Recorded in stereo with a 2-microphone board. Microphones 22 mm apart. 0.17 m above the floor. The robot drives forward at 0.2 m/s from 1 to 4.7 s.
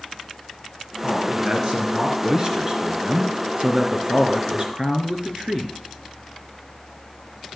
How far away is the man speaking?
About 3 m.